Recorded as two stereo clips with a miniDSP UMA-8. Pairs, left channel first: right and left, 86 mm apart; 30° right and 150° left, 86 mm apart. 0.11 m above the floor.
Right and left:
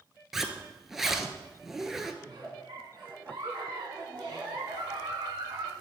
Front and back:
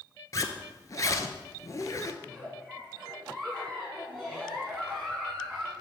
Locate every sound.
0.3 s a zipper: 5° left, 0.5 m
2.2 s a giggle: 60° left, 2 m